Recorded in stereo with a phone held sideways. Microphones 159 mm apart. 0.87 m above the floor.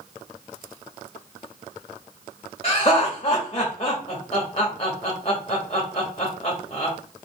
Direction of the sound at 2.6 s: 35° left (ahead or behind).